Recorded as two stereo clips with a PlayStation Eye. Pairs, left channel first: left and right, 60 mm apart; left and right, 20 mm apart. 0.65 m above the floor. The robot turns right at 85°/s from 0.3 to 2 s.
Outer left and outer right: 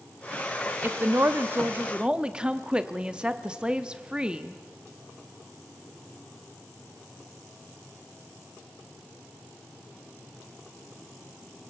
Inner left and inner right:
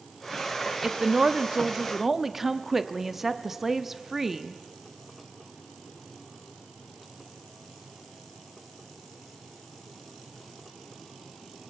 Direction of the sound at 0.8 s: 125° right.